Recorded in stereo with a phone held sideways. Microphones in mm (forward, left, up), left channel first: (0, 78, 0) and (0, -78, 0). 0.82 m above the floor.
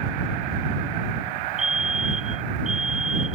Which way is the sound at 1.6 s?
5° right (ahead or behind).